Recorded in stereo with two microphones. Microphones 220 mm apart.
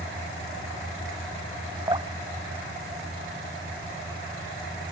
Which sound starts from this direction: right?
Dripping, at 1.9 s.